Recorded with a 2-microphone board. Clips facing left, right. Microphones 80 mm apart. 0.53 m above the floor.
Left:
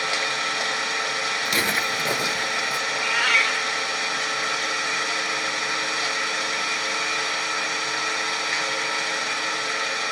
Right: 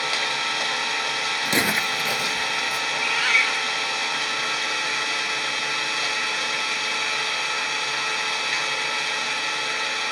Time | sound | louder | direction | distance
0.0 | an engine running | left 1 dB | 25° left (ahead or behind) | 1.2 m
1.4 | footsteps | right 2 dB | 40° right (ahead or behind) | 0.6 m
2.9 | a cat meowing | left 1 dB | 60° left (ahead or behind) | 1.3 m